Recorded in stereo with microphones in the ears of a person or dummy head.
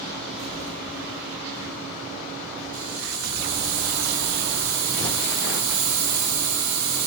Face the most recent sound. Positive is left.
turn(degrees=-75)  # may be behind; listen again after turning